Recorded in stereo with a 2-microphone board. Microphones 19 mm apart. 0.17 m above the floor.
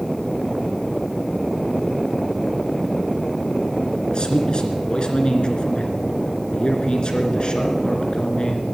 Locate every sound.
4.1 s a man speaking: 50° left (ahead or behind), 2.5 m